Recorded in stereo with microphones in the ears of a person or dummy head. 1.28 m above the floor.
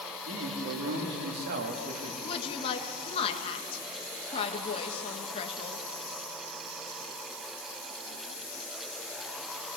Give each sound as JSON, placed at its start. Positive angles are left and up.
{"t": 0.3, "sound": "a man speaking", "side_deg": -75, "distance_m": 2.5}
{"t": 2.2, "sound": "a woman speaking", "side_deg": 35, "distance_m": 1.9}